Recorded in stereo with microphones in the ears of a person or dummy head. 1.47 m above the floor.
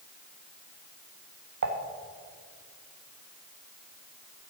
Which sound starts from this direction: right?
Dishes clattering, at 1.6 s.